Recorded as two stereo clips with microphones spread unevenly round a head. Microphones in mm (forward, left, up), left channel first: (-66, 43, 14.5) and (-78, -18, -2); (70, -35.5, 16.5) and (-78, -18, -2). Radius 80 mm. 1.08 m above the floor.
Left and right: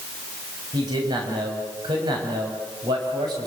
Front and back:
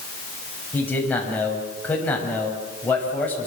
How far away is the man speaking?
About 7 m.